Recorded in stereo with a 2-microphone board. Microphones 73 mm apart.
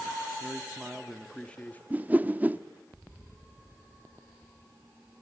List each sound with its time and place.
0.4 s a man speaking: 25° right (ahead or behind), 1.0 m; by 1.8 s 25° left (ahead or behind), 1.1 m
1.9 s a whoosh: 20° right (ahead or behind), 0.6 m